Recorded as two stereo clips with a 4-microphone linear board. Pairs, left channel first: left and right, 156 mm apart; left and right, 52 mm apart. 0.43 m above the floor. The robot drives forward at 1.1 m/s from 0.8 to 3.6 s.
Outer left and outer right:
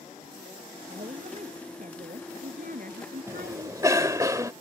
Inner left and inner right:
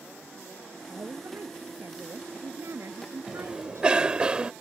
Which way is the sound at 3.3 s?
15° right (ahead or behind).